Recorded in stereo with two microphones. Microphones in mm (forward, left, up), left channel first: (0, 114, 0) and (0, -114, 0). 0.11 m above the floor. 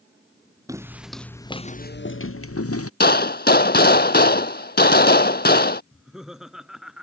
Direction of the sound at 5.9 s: Centre (ahead or behind).